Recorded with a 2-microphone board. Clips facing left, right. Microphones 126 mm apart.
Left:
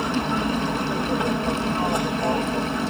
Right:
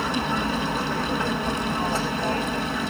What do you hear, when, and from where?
0.0 s an aircraft: 15° left (ahead or behind)